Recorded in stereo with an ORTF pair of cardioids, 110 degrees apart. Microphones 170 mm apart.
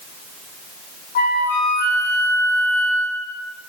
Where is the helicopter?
I don't hear a helicopter.